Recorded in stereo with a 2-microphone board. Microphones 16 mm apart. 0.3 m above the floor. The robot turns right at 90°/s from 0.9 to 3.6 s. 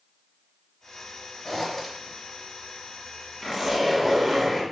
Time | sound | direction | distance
1.4 | a zipper | 20° left (ahead or behind) | 0.8 m
3.4 | a zipper | 10° left (ahead or behind) | 1.3 m